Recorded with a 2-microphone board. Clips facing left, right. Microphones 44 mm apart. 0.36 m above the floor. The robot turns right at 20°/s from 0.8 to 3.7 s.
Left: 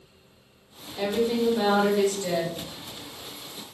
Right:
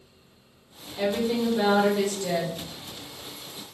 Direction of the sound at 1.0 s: 5° right (ahead or behind).